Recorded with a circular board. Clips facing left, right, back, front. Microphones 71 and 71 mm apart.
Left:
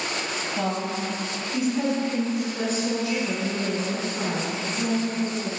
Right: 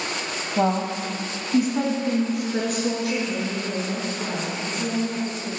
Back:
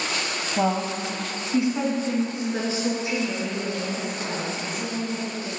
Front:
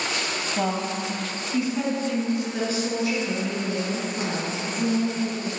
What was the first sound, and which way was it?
A woman speaking, 115° right.